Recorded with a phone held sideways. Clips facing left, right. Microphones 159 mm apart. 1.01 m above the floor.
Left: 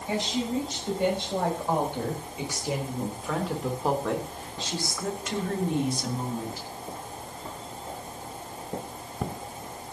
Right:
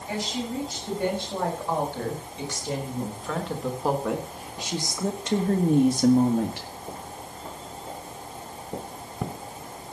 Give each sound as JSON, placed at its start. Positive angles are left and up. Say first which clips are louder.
{"t": 0.1, "sound": "a woman speaking", "louder": "left 2 dB", "side_deg": 20, "distance_m": 6.5}